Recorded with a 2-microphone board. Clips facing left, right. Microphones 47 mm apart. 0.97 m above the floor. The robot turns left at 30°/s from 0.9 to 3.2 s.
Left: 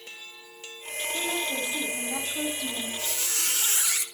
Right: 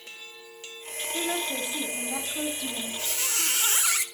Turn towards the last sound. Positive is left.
turn(degrees=-35)  # may be behind; listen again after turning